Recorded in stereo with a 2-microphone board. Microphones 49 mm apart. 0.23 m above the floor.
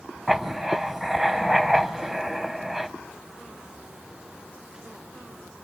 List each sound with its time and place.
0.3 s writing: 5° right (ahead or behind), 0.6 m